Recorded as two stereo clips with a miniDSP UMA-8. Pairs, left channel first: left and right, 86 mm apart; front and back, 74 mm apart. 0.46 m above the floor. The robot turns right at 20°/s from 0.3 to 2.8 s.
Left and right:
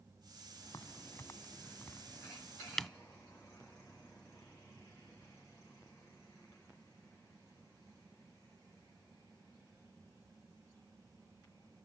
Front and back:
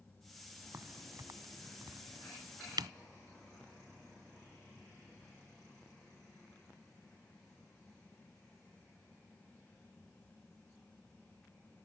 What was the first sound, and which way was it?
A crack, 135° left.